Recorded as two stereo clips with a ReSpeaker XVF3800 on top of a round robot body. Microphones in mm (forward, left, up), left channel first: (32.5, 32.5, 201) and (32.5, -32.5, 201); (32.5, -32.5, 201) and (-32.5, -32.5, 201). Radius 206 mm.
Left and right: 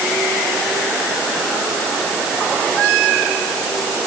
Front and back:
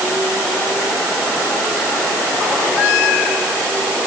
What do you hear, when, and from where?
Only background noise.